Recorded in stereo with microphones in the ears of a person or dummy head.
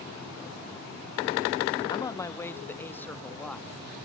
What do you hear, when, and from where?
1.9 s a man speaking: 20° left (ahead or behind); by 3.8 s 5° left (ahead or behind)